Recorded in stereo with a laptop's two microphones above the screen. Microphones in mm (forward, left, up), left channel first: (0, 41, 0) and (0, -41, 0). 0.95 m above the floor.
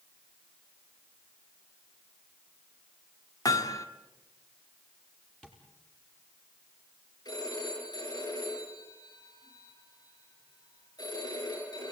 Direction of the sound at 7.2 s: 50° left (ahead or behind).